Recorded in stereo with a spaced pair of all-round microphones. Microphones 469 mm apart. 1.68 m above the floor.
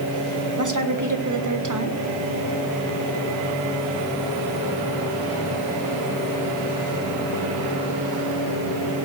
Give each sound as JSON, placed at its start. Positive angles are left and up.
{"t": 0.6, "sound": "a woman speaking", "side_deg": -40, "distance_m": 1.6}